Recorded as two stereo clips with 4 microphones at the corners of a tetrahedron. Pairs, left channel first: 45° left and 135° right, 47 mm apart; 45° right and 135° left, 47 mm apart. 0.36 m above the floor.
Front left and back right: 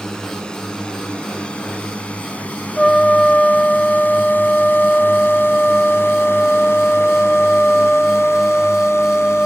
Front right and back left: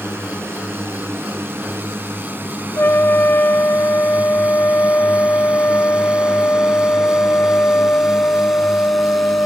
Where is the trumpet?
25° right.